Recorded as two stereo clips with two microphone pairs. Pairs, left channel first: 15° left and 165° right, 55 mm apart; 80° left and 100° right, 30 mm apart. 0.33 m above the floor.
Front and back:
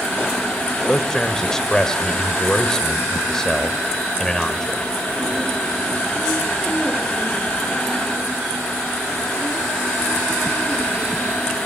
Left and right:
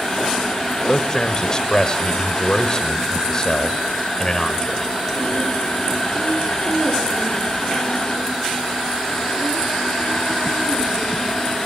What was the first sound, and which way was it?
A man speaking, 80° left.